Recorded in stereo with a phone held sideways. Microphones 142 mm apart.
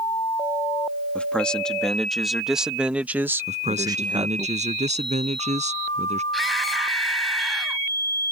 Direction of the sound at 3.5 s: 50° right (ahead or behind).